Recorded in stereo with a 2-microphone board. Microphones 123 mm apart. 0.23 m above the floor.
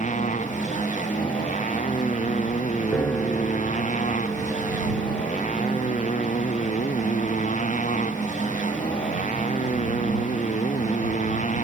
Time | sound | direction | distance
0.0 | a motorcycle | 90° left | ?
2.9 | a piano | 15° left (ahead or behind) | ?